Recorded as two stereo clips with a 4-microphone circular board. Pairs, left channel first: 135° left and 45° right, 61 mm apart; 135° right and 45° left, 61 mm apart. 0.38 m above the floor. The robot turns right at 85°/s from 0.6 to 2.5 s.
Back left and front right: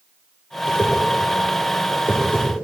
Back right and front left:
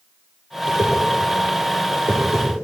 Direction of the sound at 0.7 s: 55° left.